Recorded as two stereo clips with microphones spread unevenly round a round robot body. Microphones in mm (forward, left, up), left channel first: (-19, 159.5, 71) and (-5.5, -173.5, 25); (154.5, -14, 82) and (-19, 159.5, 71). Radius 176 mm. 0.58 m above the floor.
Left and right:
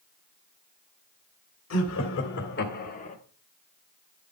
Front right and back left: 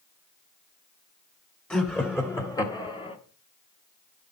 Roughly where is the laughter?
Ahead left.